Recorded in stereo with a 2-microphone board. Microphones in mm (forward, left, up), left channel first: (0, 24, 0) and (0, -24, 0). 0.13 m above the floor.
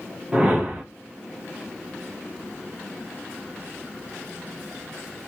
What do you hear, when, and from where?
0.3 s a whoosh: 20° right (ahead or behind), 3 m